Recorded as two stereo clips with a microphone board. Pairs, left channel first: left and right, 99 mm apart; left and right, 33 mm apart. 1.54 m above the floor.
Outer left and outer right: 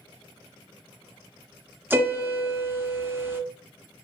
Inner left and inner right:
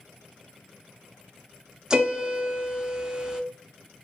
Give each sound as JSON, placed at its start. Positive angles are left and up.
{"t": 1.9, "sound": "a piano", "side_deg": -20, "distance_m": 0.5}